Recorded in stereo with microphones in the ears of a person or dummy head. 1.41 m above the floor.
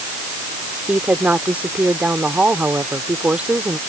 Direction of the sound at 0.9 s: 5° right (ahead or behind).